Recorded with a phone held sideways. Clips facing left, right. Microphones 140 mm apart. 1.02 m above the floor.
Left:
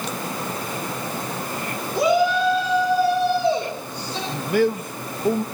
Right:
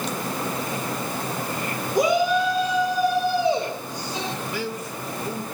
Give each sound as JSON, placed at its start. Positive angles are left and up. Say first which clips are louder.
{"t": 1.9, "sound": "a shout", "louder": "left 1 dB", "side_deg": -20, "distance_m": 3.5}
{"t": 4.3, "sound": "a man speaking", "louder": "left 9 dB", "side_deg": 60, "distance_m": 1.0}